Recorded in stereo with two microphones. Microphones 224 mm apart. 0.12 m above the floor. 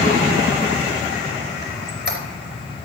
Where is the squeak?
50° right (ahead or behind), 3 m.